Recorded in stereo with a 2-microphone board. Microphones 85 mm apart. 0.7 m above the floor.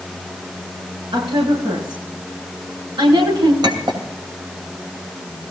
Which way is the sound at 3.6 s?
60° right (ahead or behind).